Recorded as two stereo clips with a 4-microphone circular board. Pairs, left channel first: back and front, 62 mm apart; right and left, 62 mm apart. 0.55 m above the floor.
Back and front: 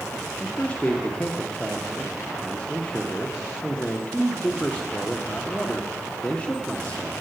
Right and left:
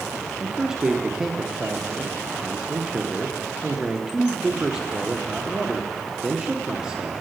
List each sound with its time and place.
0.4 s a man speaking: 145° left, 0.7 m